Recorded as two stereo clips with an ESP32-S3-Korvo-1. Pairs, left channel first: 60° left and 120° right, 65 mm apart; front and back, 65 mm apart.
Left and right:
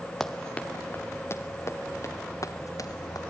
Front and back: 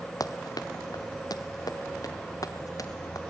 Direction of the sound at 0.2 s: 25° right.